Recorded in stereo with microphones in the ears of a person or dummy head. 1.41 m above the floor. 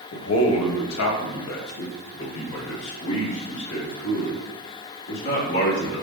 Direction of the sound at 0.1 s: 80° left.